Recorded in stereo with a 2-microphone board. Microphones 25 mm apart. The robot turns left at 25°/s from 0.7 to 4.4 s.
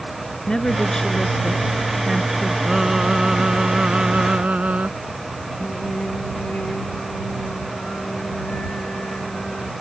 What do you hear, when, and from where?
0.5 s a woman speaking: 30° left; by 2.6 s 15° right
2.7 s singing: 20° right; by 4.9 s 65° right
5.6 s singing: 80° left